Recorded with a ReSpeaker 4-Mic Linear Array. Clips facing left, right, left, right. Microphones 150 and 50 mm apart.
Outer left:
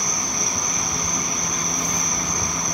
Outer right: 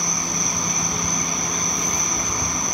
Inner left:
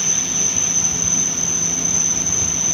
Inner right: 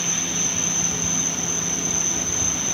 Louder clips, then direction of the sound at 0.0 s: Outer right 1 dB, inner left 1 dB; 80° left.